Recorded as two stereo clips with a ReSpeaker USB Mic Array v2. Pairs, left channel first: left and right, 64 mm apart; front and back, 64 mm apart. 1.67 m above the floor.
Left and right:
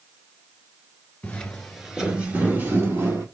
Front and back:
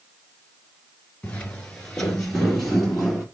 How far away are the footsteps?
About 1.7 m.